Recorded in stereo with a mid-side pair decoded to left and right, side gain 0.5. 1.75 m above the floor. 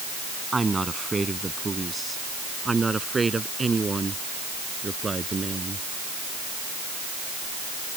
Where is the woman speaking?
20° right; by 5.8 s 25° right.